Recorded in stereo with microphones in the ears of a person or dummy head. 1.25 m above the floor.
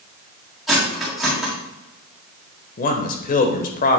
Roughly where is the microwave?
I don't hear a microwave.